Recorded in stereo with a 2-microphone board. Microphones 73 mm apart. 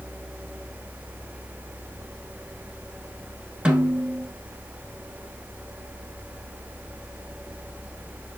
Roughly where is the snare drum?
Centre.